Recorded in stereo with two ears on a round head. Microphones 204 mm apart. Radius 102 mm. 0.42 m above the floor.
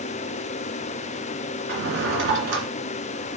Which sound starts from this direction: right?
A drawer, at 1.7 s.